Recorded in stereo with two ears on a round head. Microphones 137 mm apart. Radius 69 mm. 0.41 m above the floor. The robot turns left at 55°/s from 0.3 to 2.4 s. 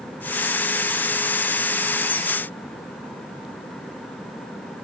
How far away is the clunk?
I don't hear a clunk.